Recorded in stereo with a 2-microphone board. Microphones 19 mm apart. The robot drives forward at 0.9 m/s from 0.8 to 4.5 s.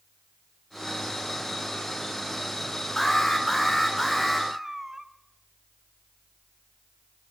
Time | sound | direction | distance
3.0 | an alarm | 20° left (ahead or behind) | 4.5 m
4.5 | a cat meowing | 25° right (ahead or behind) | 1.5 m